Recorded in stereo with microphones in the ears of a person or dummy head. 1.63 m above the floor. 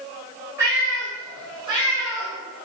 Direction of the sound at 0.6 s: 15° right (ahead or behind).